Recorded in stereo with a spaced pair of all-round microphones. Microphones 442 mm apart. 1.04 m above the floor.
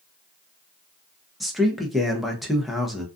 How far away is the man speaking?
About 0.6 m.